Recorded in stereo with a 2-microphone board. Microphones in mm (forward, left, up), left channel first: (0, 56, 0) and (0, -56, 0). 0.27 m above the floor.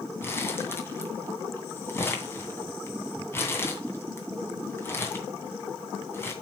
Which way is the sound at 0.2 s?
20° left (ahead or behind).